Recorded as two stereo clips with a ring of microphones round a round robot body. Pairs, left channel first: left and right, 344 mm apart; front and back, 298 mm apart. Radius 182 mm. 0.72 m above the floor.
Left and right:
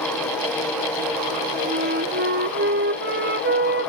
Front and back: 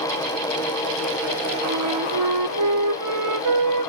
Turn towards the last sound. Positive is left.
turn(degrees=-150)